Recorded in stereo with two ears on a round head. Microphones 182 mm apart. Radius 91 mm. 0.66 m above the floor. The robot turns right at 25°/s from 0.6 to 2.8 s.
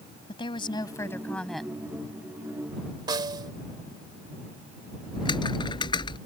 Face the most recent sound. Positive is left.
turn(degrees=25)  # may be behind; listen again after turning